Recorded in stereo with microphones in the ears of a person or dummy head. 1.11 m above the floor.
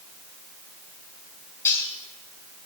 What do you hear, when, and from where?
1.6 s cutlery clinking: 15° left (ahead or behind), 3.5 m